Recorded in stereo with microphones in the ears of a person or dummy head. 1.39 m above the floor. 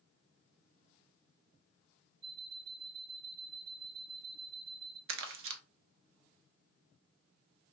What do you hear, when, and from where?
2.2 s an alarm clock: 50° right (ahead or behind), 2.5 m
5.1 s crumpling: 60° right (ahead or behind), 0.7 m